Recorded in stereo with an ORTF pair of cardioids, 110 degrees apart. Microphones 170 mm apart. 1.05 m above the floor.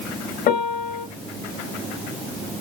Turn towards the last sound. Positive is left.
turn(degrees=55)